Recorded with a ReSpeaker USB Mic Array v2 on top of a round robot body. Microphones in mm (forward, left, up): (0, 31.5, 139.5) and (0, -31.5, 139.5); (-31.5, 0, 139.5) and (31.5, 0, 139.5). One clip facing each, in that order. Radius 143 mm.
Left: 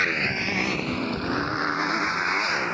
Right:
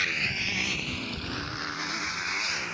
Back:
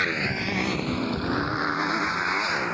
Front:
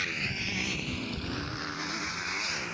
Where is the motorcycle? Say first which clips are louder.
Left 5 dB, back 8 dB; 145° left; by 2.8 s 140° left.